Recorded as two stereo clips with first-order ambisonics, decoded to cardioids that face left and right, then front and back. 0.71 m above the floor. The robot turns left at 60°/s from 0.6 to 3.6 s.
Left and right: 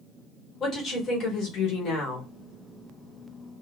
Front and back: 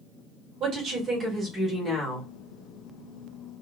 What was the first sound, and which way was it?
A woman speaking, 150° left.